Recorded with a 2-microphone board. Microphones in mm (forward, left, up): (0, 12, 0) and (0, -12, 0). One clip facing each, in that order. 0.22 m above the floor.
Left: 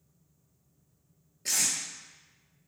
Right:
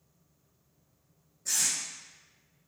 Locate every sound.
1.4 s tape being pulled: 80° left, 0.6 m